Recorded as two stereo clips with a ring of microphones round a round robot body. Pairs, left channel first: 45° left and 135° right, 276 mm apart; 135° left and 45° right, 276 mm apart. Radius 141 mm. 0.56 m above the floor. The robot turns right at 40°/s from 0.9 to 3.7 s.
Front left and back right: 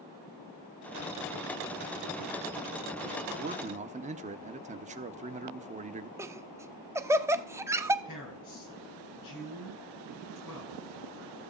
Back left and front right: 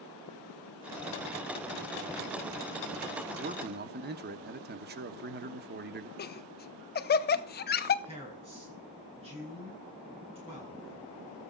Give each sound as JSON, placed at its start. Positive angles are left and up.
{"t": 3.4, "sound": "a man speaking", "azimuth_deg": -95, "distance_m": 1.0}
{"t": 6.2, "sound": "laughter", "azimuth_deg": 150, "distance_m": 0.8}
{"t": 8.1, "sound": "a man speaking", "azimuth_deg": 25, "distance_m": 9.0}